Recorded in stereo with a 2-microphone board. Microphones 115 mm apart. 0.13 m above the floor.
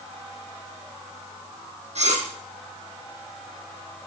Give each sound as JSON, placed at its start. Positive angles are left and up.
{"t": 1.9, "sound": "cutlery clinking", "side_deg": -75, "distance_m": 3.5}